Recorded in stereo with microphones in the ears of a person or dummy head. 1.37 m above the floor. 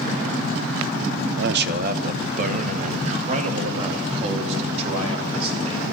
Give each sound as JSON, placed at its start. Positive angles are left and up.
{"t": 1.4, "sound": "a man speaking", "side_deg": -65, "distance_m": 0.6}